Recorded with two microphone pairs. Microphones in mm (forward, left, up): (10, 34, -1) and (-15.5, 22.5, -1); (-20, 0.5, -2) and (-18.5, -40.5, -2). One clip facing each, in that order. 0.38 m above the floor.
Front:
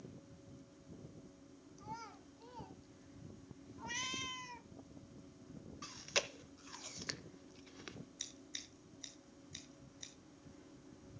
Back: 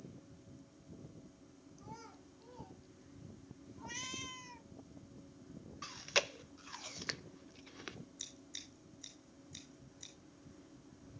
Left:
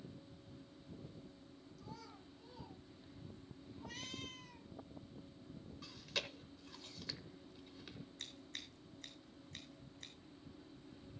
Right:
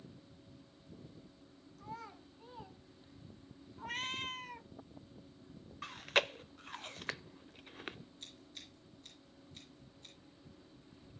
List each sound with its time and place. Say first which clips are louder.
1.8 s a child speaking: front 4 dB, right 7 dB; 45° right, 2.5 m; by 3.5 s 25° right, 3.5 m
3.8 s a cat meowing: front 3 dB, right 9 dB; 50° right, 0.7 m
5.8 s chewing: back 4 dB, right 12 dB; 85° right, 0.6 m
8.2 s scissors: front 2 dB, left 2 dB; 95° left, 7 m